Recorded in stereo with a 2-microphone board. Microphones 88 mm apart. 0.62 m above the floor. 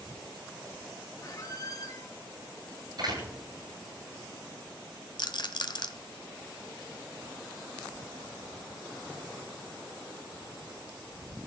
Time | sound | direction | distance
1.2 | a squeak | 40° left (ahead or behind) | 1.6 m
3.0 | a door slam | 55° right (ahead or behind) | 8 m
5.2 | a rattle | 55° left (ahead or behind) | 1.0 m